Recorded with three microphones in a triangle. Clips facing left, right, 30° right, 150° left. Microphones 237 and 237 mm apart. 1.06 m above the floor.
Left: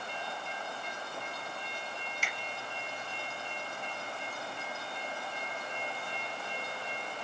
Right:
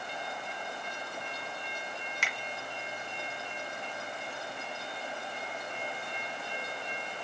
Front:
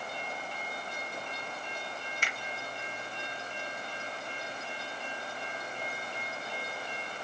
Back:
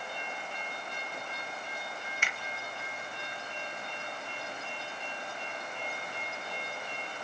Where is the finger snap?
85° right, 1.9 m.